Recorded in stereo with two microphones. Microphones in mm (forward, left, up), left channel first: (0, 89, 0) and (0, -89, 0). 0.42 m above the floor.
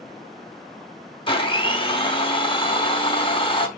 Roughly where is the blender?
Left.